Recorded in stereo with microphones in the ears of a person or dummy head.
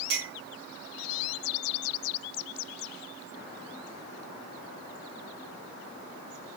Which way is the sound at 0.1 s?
85° right.